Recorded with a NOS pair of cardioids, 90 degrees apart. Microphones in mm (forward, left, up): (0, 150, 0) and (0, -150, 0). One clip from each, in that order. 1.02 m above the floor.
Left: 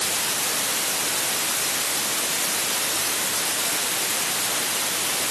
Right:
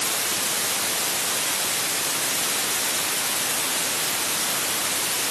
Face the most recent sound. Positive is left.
No sound to turn to.